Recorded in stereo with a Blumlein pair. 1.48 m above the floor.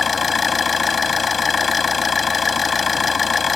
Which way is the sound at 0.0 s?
15° left.